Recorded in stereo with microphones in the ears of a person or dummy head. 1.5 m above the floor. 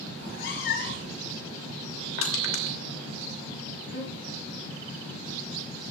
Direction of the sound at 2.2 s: 75° left (ahead or behind).